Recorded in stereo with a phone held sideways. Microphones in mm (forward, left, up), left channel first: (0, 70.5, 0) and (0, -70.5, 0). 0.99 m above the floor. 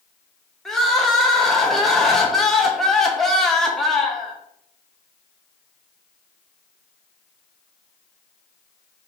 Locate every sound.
0.7 s crying: centre (ahead or behind), 0.6 m